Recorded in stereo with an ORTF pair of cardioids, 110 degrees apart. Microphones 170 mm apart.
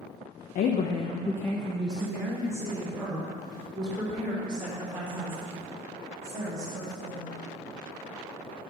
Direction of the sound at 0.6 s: 65° left.